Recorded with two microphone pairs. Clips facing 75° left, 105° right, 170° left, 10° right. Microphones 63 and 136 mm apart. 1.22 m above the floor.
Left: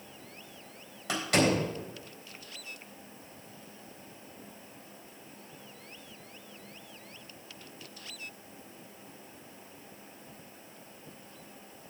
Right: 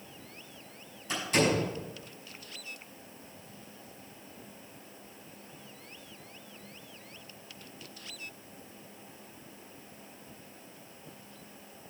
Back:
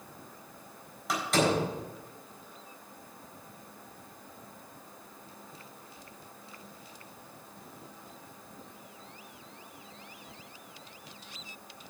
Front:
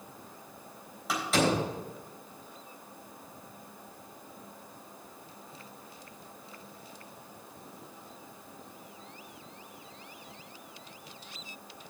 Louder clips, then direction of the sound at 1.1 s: Left 1 dB, even; 80° left.